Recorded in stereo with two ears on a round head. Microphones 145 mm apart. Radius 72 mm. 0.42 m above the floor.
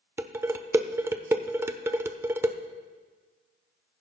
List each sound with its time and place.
0.2 s dishes clattering: 15° right (ahead or behind), 0.5 m